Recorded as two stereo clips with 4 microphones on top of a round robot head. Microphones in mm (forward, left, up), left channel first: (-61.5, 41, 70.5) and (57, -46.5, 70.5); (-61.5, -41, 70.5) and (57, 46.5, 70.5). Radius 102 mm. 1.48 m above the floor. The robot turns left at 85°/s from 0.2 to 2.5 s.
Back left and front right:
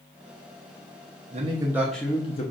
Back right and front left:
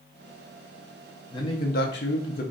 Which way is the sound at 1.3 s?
75° right.